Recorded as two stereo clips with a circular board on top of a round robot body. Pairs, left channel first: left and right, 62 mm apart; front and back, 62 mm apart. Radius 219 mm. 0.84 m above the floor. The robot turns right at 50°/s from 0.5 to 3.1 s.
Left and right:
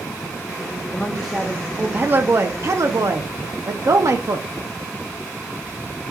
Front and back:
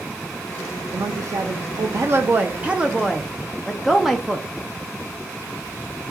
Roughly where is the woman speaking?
Behind.